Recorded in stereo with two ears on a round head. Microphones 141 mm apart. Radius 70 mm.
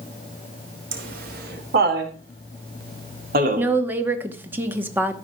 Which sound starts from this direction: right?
Laughter, at 0.9 s.